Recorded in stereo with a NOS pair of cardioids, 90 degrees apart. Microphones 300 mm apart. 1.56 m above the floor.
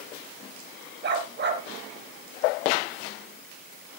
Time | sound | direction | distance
1.0 | a dog barking | 40° right | 4 m